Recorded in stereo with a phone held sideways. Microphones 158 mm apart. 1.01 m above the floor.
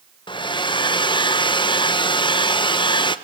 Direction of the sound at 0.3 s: 30° left (ahead or behind).